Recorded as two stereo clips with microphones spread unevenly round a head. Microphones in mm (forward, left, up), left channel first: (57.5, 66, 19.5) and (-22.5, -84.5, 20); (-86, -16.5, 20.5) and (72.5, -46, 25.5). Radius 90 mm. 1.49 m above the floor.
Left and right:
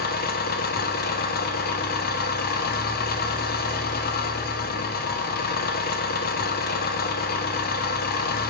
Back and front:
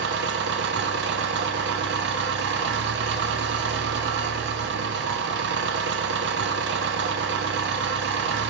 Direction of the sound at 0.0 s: 25° left.